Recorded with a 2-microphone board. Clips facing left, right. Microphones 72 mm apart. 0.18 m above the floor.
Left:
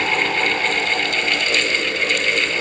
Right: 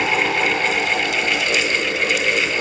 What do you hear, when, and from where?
Only background noise.